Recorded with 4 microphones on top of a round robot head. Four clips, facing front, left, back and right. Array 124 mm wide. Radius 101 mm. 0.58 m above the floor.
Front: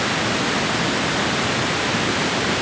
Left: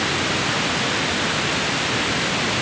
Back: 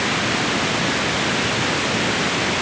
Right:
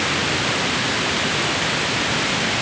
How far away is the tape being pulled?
I don't hear tape being pulled.